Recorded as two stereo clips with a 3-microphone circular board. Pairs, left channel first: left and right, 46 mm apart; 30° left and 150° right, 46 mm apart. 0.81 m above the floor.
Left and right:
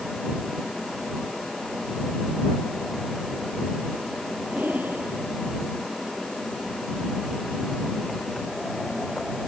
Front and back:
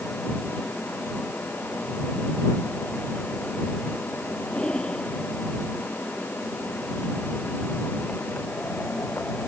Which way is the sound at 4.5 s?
40° right.